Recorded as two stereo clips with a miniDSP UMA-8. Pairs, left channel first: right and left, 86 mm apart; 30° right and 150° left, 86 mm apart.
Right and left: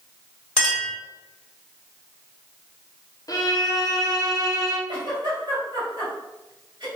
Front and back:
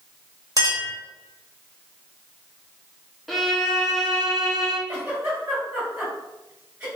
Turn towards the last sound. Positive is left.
turn(degrees=85)